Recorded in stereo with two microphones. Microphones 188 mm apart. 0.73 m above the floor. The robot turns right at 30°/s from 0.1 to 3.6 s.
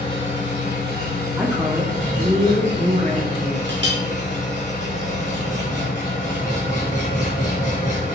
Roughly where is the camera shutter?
I don't hear a camera shutter.